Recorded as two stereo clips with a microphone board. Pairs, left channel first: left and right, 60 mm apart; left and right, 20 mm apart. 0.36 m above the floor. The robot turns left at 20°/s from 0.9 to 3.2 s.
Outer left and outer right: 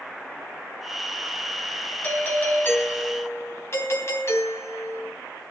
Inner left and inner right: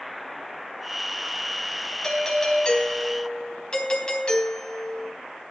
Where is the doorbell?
30° left (ahead or behind), 3 m; by 5.1 s 45° left (ahead or behind), 3 m.